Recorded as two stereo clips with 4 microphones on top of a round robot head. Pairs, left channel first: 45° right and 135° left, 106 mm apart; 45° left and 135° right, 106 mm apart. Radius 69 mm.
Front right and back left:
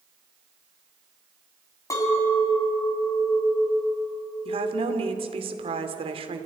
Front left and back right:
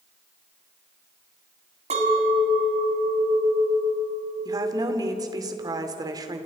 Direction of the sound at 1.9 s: 105° right.